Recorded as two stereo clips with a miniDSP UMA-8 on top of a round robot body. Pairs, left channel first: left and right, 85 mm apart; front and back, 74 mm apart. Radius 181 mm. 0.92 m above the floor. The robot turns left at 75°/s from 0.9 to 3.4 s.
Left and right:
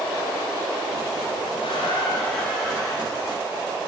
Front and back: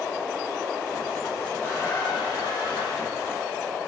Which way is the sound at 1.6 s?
75° left.